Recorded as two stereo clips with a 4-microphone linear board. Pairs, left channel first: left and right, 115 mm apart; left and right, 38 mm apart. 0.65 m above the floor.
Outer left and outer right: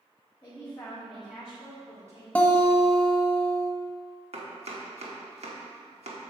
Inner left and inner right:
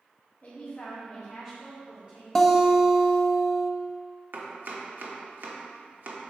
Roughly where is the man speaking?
Left.